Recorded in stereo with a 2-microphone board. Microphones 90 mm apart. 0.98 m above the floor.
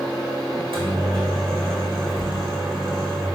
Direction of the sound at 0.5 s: 65° right (ahead or behind).